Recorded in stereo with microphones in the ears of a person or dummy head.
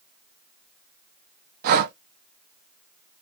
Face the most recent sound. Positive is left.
turn(degrees=-55)  # may be behind; listen again after turning